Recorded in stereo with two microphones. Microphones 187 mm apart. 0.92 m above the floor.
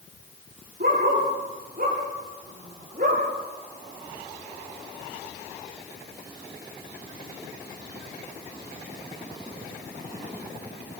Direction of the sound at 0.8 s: 55° right (ahead or behind).